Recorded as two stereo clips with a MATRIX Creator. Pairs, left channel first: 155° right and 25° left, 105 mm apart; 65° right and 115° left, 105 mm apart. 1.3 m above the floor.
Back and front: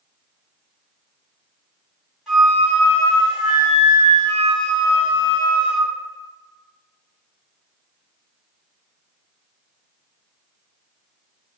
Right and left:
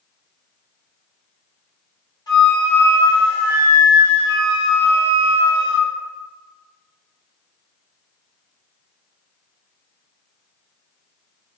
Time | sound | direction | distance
2.3 | a flute | 65° right | 1.4 m